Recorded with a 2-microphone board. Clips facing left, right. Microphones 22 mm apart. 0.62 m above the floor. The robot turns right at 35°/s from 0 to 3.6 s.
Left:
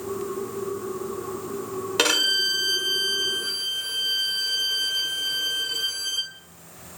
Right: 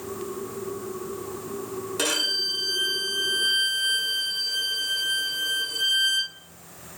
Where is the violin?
50° left, 1.0 m; by 6.3 s 110° left, 1.0 m.